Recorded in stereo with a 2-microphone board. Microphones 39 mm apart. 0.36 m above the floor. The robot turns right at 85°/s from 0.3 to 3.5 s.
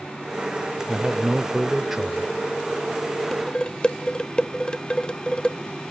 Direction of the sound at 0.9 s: 15° right (ahead or behind).